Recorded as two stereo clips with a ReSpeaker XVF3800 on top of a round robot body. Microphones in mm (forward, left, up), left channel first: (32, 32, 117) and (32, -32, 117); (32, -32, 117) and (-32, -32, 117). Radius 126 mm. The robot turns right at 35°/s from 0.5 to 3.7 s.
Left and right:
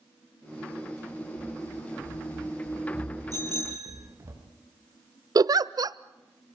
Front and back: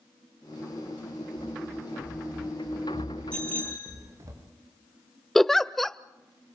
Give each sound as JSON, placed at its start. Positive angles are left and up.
{"t": 1.4, "sound": "running footsteps", "azimuth_deg": 125, "distance_m": 5.5}
{"t": 3.3, "sound": "a bicycle bell", "azimuth_deg": -75, "distance_m": 6.5}
{"t": 5.3, "sound": "a giggle", "azimuth_deg": -85, "distance_m": 0.6}